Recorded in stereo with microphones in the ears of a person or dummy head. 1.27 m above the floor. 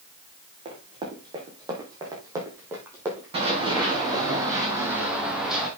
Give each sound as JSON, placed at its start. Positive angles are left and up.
{"t": 0.7, "sound": "running footsteps", "side_deg": -25, "distance_m": 4.0}
{"t": 3.3, "sound": "running footsteps", "side_deg": -25, "distance_m": 3.5}